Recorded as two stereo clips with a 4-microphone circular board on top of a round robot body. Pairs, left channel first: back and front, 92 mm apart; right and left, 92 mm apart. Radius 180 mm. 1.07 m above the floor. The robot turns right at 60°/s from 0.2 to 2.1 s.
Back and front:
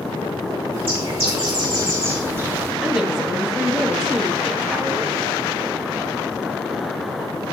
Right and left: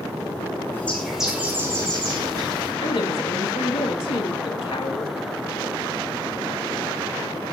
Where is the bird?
25° right, 5 m; by 2.7 s 60° left, 5 m.